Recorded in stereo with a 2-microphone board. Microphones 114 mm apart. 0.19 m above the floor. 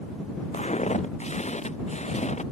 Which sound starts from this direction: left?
Footsteps, at 0.5 s.